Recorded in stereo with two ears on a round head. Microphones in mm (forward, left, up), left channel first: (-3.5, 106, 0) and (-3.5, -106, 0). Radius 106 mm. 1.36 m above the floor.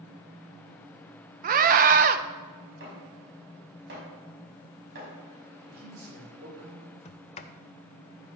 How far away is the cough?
I don't hear a cough.